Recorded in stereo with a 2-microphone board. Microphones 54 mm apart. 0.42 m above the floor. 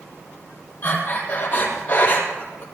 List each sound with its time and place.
0.8 s breathing: 30° left (ahead or behind), 3.5 m